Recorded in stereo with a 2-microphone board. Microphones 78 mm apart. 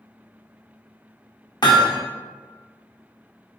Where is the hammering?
55° left (ahead or behind), 0.6 m.